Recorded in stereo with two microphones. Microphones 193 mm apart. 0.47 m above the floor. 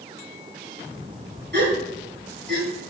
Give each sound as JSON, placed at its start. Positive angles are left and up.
{"t": 1.5, "sound": "a gasp", "side_deg": -60, "distance_m": 3.0}